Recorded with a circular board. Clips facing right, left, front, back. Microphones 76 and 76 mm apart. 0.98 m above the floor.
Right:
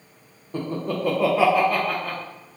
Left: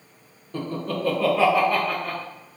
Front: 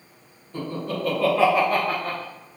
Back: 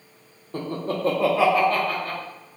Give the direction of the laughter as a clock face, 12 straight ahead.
5 o'clock.